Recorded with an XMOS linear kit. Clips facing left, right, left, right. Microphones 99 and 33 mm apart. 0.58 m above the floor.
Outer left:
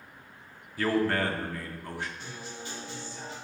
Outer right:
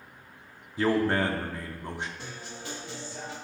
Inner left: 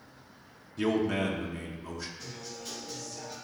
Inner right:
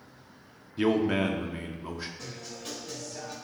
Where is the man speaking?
20° right (ahead or behind), 0.6 m.